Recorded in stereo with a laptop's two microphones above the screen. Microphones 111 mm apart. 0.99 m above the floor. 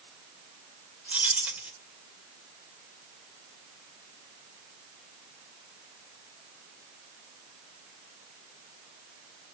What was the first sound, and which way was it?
Keys jangling, 10° right (ahead or behind).